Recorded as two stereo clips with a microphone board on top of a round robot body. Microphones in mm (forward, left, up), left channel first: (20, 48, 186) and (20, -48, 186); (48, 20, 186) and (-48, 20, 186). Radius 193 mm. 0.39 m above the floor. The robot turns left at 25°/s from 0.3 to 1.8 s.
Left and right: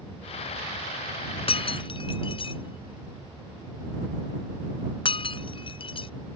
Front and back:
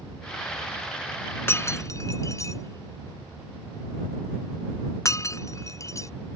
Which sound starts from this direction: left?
Breaking glass, at 1.5 s.